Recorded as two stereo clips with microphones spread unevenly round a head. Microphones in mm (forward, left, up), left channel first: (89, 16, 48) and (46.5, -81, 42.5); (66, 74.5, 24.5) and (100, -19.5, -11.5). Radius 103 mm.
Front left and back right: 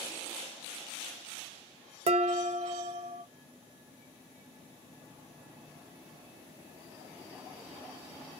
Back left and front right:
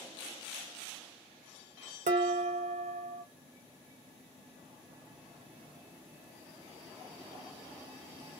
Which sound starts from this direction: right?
Dishes clattering, at 2.1 s.